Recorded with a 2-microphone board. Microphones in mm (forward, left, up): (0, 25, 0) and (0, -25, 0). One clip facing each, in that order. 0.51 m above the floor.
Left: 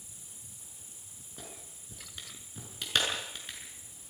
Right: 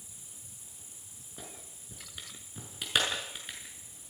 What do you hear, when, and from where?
1.4 s a clap: 10° right (ahead or behind), 6.5 m